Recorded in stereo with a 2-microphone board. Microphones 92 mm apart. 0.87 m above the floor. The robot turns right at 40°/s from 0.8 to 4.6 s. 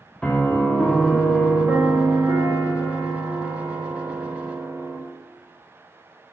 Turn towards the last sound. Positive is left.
turn(degrees=-40)